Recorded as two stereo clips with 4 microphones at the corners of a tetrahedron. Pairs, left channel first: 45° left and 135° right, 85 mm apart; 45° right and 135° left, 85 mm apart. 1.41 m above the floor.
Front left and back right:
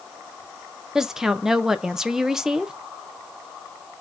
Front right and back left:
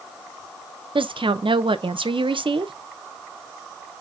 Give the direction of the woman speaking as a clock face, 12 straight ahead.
7 o'clock.